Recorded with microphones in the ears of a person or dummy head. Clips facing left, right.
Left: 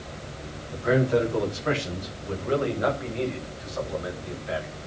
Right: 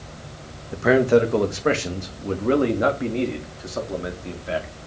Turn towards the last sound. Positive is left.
turn(degrees=-45)  # may be behind; listen again after turning